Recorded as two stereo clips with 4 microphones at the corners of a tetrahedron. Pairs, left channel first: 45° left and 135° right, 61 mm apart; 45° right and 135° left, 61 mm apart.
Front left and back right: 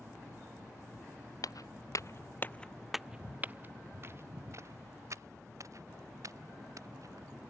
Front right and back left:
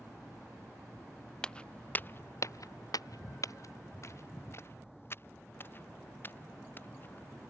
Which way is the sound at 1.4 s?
30° left.